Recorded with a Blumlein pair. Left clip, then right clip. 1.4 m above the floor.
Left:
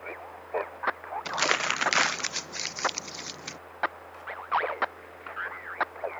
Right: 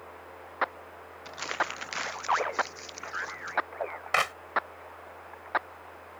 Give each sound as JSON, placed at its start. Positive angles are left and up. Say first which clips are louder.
{"t": 1.2, "sound": "crumpling", "louder": "left 6 dB", "azimuth_deg": 30}
{"t": 4.1, "sound": "a clap", "louder": "right 13 dB", "azimuth_deg": -45}